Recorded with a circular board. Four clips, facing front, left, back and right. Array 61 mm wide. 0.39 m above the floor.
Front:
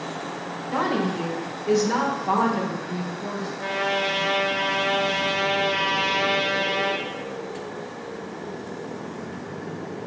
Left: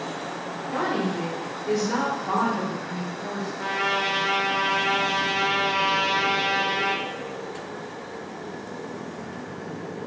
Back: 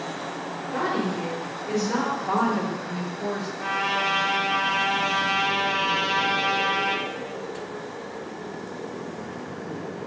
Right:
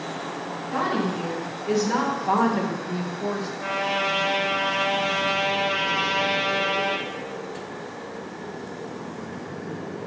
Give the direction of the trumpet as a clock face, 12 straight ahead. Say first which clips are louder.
Left 1 dB, front 1 dB; 10 o'clock.